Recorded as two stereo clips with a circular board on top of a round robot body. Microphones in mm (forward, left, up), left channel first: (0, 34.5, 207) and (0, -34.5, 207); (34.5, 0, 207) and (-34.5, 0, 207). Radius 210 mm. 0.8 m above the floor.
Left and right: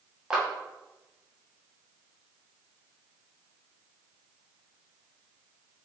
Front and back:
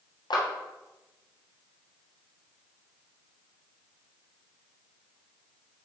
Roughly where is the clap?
Ahead.